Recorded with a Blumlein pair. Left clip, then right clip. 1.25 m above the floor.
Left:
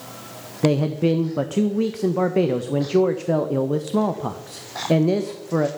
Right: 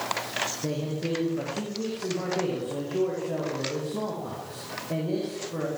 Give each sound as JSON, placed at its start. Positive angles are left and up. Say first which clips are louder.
{"t": 0.6, "sound": "a man speaking", "louder": "left 10 dB", "azimuth_deg": 35, "distance_m": 1.3}